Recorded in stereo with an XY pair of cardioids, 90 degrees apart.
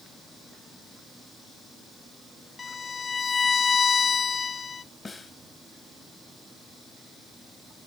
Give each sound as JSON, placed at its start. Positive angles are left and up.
{"t": 2.6, "sound": "a violin", "azimuth_deg": 40, "distance_m": 0.7}
{"t": 5.0, "sound": "a snare drum", "azimuth_deg": 35, "distance_m": 2.5}